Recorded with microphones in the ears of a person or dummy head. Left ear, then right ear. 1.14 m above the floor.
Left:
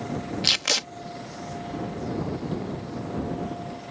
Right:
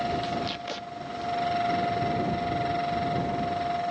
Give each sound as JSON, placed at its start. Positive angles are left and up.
{"t": 0.4, "sound": "tape being pulled", "side_deg": 75}